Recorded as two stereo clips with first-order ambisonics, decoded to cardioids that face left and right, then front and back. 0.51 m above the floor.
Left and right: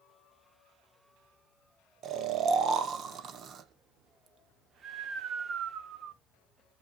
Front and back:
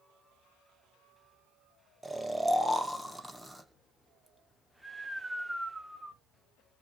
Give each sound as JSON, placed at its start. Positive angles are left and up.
{"t": 2.0, "sound": "snoring", "azimuth_deg": -100, "distance_m": 0.8}